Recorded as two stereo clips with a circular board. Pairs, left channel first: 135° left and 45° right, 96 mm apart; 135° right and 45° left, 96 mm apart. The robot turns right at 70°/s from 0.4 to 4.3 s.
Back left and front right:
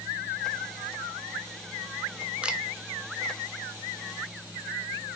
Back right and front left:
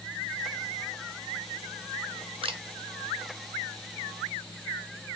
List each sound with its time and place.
2.4 s a camera shutter: 30° left, 0.9 m; by 2.6 s 45° left, 0.9 m